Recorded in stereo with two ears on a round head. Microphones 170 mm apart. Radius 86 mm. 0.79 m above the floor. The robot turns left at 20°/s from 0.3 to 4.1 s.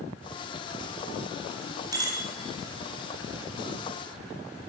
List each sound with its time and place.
1.9 s a bicycle bell: 20° right (ahead or behind), 3.5 m; by 2.2 s 25° right (ahead or behind), 3.5 m